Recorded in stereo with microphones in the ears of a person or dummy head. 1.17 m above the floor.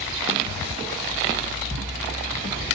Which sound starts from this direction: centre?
Ticking, at 1.7 s.